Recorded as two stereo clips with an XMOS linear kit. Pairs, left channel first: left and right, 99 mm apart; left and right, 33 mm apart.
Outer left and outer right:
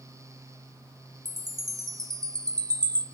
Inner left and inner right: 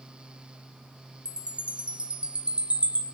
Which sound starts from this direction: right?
A chime, at 1.2 s.